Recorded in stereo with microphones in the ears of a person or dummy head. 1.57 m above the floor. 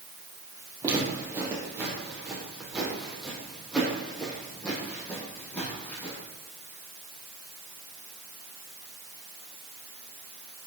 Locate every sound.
0.8 s footsteps: 15° right (ahead or behind), 3.5 m; by 6.2 s 15° left (ahead or behind), 5.5 m